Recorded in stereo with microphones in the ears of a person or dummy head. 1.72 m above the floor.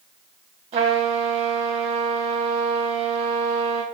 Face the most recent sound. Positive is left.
turn(degrees=-30)  # may be behind; listen again after turning